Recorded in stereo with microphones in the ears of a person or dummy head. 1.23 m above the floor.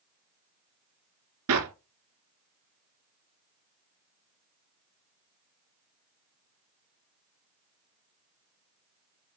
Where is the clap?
80° right, 2.0 m.